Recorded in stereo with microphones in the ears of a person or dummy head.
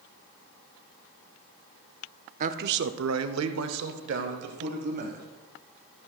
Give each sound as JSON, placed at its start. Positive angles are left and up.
{"t": 2.4, "sound": "a man speaking", "side_deg": -45, "distance_m": 0.6}